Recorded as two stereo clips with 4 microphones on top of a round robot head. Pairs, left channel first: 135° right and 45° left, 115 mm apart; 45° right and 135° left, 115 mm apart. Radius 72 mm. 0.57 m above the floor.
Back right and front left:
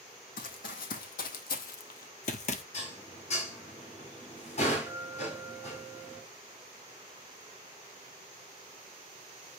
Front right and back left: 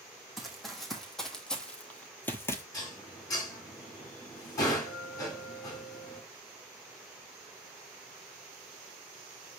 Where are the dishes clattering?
105° right, 3.5 m.